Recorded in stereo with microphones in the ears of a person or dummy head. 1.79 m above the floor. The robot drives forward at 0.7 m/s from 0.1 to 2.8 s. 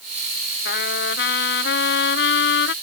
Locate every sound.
0.7 s a trumpet: 60° left (ahead or behind); by 2.7 s 70° left (ahead or behind)